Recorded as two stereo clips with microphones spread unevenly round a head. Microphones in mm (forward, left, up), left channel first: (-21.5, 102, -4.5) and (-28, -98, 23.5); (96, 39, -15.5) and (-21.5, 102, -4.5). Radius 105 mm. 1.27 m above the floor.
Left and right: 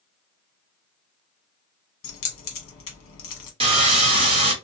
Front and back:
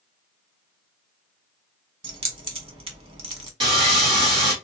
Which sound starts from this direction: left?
Keys jangling, at 2.0 s.